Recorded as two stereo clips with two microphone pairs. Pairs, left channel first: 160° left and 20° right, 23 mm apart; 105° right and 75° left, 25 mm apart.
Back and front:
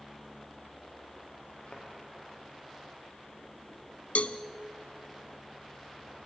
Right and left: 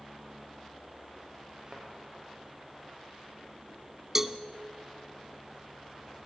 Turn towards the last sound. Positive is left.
turn(degrees=150)